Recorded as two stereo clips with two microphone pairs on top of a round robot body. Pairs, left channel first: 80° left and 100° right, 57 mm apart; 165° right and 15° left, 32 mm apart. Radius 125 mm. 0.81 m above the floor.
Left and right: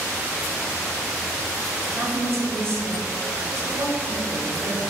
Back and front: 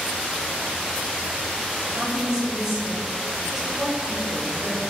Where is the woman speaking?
55° right, 2 m; by 4.8 s 70° right, 6.5 m.